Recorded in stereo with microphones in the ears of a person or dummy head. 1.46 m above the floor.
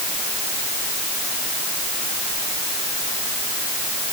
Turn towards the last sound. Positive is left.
No sound to turn to.